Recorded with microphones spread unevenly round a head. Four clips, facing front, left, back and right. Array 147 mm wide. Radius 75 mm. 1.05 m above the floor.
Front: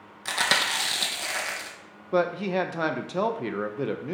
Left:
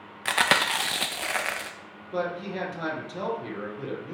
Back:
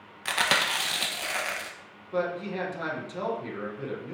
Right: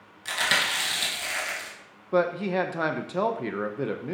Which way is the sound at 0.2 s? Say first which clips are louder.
Left 4 dB, even; 90° left.